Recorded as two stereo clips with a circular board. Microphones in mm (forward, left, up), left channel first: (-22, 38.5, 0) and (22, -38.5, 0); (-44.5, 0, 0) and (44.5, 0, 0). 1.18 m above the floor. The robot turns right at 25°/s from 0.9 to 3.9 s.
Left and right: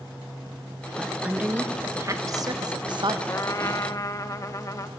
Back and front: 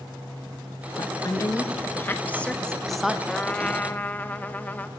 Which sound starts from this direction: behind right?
A woman speaking, at 1.0 s.